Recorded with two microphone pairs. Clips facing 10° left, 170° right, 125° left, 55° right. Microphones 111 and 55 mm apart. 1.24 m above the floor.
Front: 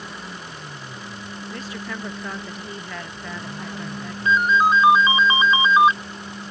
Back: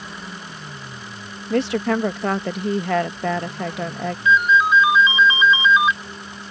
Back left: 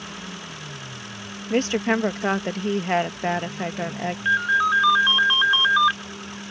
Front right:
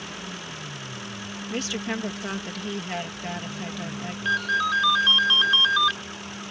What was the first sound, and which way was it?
A woman speaking, 175° left.